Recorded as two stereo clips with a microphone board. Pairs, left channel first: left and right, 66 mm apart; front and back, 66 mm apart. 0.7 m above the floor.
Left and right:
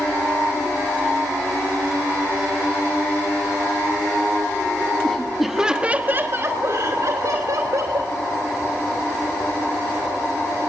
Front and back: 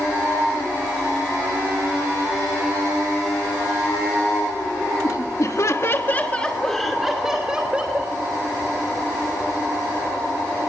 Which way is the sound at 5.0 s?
10° left.